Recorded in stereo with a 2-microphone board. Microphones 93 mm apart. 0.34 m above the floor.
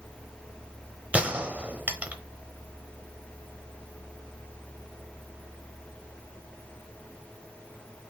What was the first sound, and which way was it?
A gunshot, 15° right (ahead or behind).